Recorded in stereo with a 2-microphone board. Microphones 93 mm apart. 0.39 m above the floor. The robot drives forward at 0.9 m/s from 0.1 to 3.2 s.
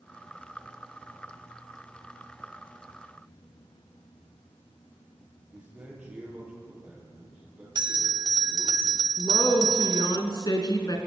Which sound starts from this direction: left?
A woman speaking, at 9.2 s.